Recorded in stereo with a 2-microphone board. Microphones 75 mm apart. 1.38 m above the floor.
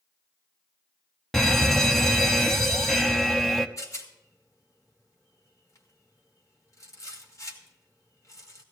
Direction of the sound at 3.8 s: 45° left (ahead or behind).